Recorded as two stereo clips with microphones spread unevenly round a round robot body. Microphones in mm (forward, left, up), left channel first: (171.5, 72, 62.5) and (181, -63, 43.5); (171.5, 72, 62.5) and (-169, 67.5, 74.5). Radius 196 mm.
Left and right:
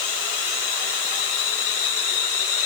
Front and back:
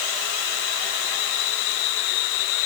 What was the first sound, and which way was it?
Only background noise.